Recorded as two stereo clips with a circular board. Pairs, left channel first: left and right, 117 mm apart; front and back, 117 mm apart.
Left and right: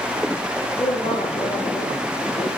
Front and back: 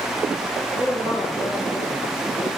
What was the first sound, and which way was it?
A man speaking, 80° left.